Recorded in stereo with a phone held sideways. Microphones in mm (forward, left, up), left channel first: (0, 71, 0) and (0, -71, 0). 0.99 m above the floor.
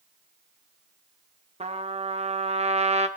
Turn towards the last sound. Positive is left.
turn(degrees=-50)  # may be behind; listen again after turning